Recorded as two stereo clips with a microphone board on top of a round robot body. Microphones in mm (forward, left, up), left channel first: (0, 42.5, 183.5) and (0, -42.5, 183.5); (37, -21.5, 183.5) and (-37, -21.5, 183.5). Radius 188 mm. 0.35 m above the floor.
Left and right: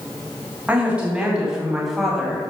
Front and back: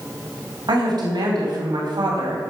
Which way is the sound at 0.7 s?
165° right.